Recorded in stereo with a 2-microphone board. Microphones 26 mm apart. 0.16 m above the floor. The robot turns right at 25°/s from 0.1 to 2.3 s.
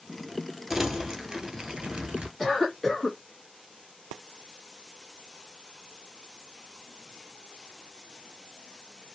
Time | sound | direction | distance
0.7 | crumpling | 165° right | 0.8 m
2.4 | a cough | 10° left (ahead or behind) | 1.0 m